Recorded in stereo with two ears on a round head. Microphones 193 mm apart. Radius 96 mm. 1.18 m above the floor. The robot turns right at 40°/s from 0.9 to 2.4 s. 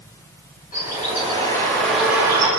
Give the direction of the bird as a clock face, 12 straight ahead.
7 o'clock.